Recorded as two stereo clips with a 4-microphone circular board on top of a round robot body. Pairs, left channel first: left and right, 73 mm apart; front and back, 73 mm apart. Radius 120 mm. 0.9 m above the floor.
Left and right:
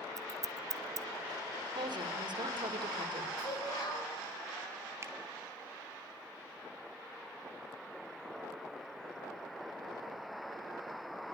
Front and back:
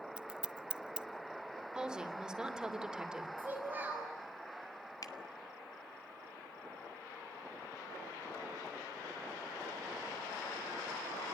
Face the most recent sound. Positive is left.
turn(degrees=-35)